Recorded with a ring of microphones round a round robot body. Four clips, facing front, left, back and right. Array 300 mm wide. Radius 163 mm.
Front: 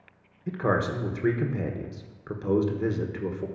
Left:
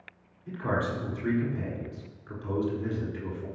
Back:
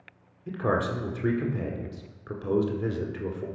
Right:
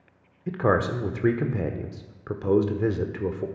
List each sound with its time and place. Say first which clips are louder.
0.5 s a man speaking: right 7 dB, front 1 dB; 80° right, 1.3 m